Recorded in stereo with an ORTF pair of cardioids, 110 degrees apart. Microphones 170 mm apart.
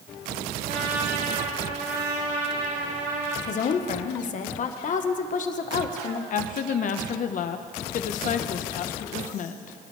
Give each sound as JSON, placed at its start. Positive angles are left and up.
{"t": 0.7, "sound": "a trumpet", "azimuth_deg": -60, "distance_m": 5.5}
{"t": 3.5, "sound": "a woman speaking", "azimuth_deg": 50, "distance_m": 1.4}
{"t": 6.3, "sound": "a woman speaking", "azimuth_deg": 55, "distance_m": 1.2}